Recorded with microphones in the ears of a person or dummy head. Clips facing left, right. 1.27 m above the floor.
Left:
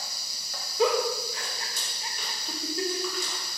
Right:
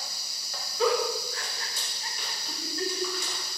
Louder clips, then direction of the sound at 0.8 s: Left 1 dB; 15° left (ahead or behind).